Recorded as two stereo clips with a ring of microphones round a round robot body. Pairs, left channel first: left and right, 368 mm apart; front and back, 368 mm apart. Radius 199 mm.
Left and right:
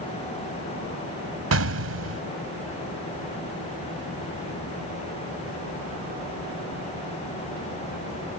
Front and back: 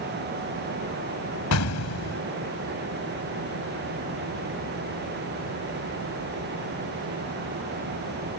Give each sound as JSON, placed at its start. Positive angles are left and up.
{"t": 1.5, "sound": "an explosion", "azimuth_deg": -45}